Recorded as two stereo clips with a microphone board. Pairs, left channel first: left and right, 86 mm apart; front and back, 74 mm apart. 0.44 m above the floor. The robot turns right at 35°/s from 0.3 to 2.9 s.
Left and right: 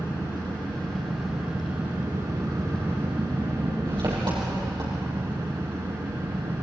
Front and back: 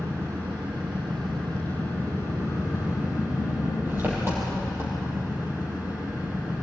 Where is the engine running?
145° left, 7.5 m; by 6.6 s 120° right, 7.5 m.